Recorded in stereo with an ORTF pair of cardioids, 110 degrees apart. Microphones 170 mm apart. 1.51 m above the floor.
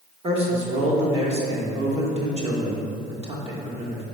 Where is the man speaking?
35° right, 1.7 m.